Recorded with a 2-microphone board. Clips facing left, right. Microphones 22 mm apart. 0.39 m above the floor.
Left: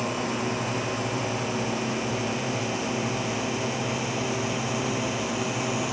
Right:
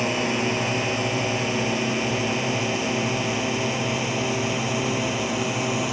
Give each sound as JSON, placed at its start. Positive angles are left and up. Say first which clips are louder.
{"t": 0.0, "sound": "a drone", "louder": "right 5 dB", "side_deg": -30}